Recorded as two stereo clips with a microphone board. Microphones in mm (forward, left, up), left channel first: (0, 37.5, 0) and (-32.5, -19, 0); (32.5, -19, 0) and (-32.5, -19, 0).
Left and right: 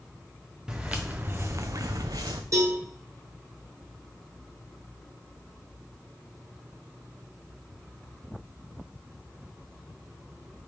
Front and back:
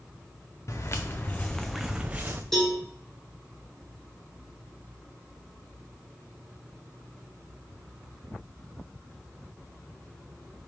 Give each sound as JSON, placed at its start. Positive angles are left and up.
{"t": 0.7, "sound": "footsteps", "azimuth_deg": -40, "distance_m": 0.7}
{"t": 2.5, "sound": "a cowbell", "azimuth_deg": -85, "distance_m": 1.8}